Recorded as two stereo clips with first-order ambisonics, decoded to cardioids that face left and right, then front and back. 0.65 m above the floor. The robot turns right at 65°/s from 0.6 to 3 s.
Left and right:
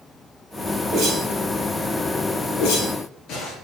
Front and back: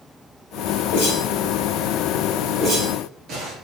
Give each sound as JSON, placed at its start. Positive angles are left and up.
{"t": 0.9, "sound": "a whoosh", "azimuth_deg": -5, "distance_m": 3.5}